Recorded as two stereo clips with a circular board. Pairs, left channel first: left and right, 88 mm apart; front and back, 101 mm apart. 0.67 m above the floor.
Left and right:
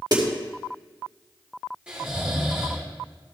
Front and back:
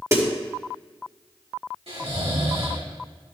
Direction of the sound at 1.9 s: 170° right.